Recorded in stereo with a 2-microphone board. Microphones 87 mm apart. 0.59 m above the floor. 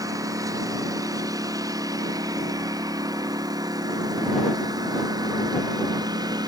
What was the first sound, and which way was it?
A lawn mower, 40° right (ahead or behind).